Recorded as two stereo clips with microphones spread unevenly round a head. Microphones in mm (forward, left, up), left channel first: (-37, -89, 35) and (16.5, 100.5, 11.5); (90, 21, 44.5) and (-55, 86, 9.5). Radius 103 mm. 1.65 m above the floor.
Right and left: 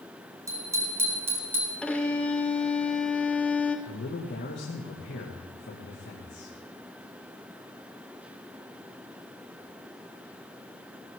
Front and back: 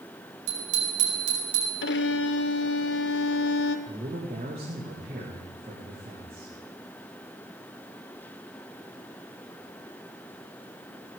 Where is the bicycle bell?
150° left, 3.5 m; by 1.7 s 155° left, 5 m.